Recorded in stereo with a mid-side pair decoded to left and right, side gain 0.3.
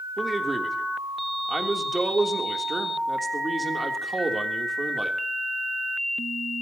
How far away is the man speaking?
About 3 m.